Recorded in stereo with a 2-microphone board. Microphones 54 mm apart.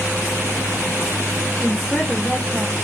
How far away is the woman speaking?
About 1.3 m.